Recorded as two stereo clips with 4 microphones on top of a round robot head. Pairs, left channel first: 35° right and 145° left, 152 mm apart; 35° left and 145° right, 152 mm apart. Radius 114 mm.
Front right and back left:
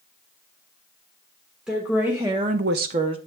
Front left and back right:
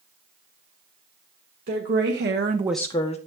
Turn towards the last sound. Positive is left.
turn(degrees=85)